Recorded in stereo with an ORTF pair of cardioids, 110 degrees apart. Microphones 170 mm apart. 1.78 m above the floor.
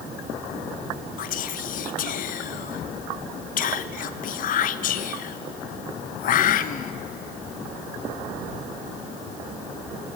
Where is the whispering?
55° left, 0.7 m.